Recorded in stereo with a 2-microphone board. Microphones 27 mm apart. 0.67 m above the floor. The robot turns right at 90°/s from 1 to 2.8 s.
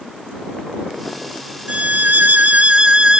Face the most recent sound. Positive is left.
turn(degrees=-40)